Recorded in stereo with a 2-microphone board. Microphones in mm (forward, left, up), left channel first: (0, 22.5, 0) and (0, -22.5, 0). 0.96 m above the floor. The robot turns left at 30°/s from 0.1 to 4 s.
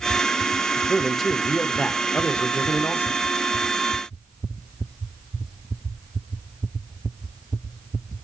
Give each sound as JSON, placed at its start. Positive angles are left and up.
{"t": 0.8, "sound": "a man speaking", "azimuth_deg": -170, "distance_m": 0.8}